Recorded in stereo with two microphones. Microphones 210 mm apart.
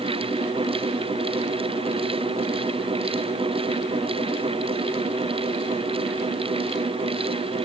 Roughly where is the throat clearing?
I don't hear throat clearing.